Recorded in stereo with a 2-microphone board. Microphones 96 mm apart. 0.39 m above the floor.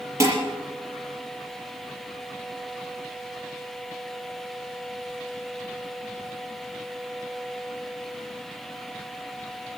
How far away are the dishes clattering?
About 6.5 m.